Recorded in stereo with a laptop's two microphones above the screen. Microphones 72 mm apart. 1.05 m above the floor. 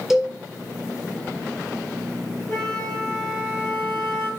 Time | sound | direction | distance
0.1 | a cowbell | 5° right (ahead or behind) | 1.7 m
2.5 | a flute | 30° left (ahead or behind) | 5.5 m